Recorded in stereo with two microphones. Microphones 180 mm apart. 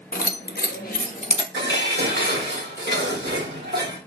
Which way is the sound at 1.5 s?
70° right (ahead or behind).